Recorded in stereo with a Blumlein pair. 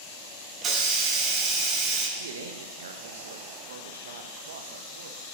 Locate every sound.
0.6 s a hiss: 25° right, 1.2 m
2.2 s a man speaking: 60° right, 1.1 m